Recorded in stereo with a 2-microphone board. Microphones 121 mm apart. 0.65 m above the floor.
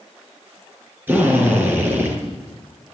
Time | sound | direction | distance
1.1 | a drill | 15° right (ahead or behind) | 7 m